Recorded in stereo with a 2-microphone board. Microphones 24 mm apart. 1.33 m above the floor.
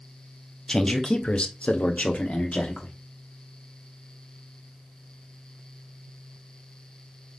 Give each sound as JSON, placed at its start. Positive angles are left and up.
{"t": 0.7, "sound": "a man speaking", "side_deg": 20, "distance_m": 0.8}